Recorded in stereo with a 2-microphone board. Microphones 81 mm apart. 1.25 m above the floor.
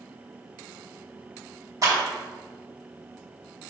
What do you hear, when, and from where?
1.8 s a clap: 45° right (ahead or behind), 2.5 m